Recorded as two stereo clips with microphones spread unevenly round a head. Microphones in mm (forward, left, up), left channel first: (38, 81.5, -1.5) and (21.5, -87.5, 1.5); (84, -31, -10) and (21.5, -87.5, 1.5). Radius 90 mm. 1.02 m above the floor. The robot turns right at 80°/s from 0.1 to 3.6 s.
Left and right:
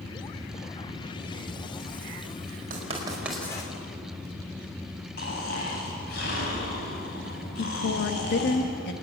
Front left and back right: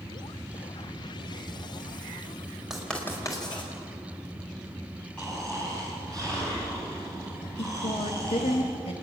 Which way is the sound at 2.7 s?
55° right.